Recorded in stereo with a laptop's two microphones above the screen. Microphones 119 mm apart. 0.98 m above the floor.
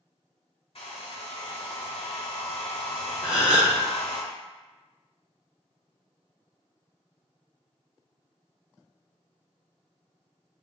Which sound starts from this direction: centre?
A gasp, at 3.2 s.